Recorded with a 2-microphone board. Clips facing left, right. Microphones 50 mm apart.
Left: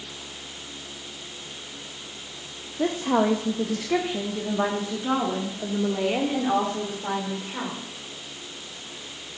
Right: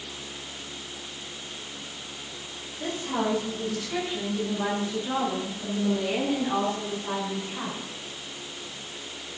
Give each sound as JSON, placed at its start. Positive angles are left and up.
{"t": 2.8, "sound": "a woman speaking", "side_deg": 75, "distance_m": 1.0}